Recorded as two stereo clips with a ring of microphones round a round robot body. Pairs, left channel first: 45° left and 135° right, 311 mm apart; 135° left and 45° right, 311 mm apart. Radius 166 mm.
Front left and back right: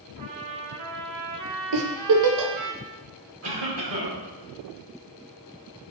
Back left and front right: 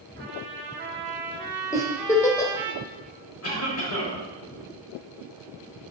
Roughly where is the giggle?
Behind right.